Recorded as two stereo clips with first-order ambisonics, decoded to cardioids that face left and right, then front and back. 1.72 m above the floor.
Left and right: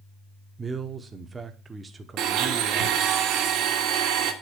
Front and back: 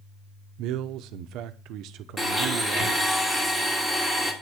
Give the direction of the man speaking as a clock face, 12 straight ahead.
5 o'clock.